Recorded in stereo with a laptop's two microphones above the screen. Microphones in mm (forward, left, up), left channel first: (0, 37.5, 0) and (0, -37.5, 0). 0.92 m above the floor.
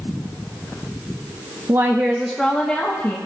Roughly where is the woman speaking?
Right.